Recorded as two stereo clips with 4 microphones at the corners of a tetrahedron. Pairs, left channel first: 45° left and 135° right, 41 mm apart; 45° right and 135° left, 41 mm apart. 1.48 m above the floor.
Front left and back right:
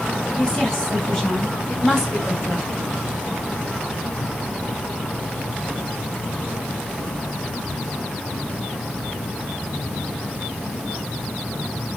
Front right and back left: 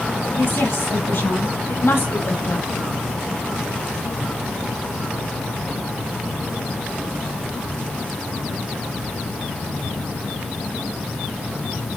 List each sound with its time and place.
0.3 s a woman speaking: 30° right, 8 m; by 2.8 s 55° right, 6.5 m